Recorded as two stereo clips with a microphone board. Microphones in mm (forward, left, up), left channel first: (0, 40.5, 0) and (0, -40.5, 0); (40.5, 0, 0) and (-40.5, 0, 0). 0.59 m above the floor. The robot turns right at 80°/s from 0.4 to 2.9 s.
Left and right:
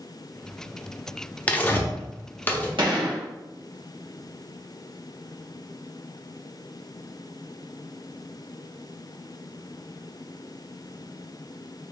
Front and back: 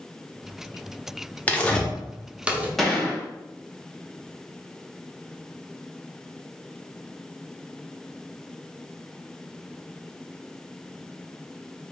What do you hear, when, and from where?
1.5 s tearing paper: 40° left, 0.7 m; by 2.7 s 140° left, 0.7 m
2.8 s a gunshot: 90° right, 1.2 m; by 3.2 s 80° right, 1.2 m